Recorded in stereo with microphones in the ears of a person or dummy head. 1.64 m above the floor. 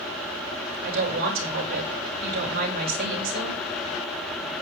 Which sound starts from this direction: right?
A woman speaking, at 0.8 s.